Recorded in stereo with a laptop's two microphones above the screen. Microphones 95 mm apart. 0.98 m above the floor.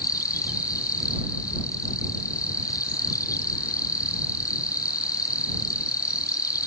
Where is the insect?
40° left (ahead or behind).